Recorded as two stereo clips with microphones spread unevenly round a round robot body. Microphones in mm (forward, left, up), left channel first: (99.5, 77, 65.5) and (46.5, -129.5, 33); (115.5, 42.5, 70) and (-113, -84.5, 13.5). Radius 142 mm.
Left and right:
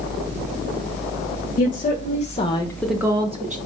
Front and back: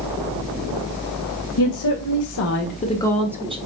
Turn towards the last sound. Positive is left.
turn(degrees=-110)